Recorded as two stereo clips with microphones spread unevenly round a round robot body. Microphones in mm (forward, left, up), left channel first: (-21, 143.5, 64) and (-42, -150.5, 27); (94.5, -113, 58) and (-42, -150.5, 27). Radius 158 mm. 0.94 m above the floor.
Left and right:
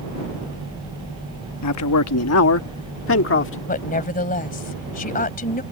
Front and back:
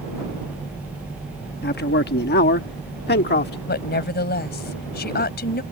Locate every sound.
1.6 s a man speaking: 45° left; by 3.6 s 30° left
3.7 s a woman speaking: 20° left